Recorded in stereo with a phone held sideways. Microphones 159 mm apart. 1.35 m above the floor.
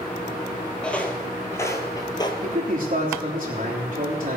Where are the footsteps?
5° left (ahead or behind), 1.7 m; by 2.3 s 30° left (ahead or behind), 1.5 m.